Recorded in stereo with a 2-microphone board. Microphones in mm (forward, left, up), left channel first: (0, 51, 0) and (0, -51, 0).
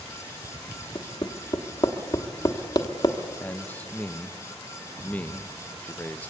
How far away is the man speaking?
About 0.5 m.